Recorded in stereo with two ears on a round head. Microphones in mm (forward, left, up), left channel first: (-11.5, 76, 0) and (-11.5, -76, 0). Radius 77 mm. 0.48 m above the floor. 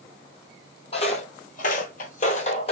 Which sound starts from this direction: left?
Footsteps, at 0.9 s.